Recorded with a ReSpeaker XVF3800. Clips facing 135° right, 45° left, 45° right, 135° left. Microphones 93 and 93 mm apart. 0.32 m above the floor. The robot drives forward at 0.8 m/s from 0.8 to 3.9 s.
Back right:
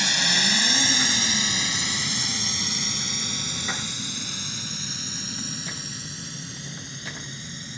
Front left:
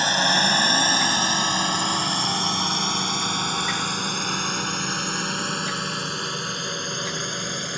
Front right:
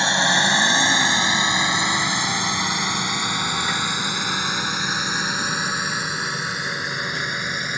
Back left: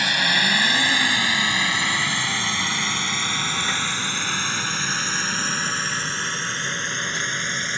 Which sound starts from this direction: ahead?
A drone, at 0.0 s.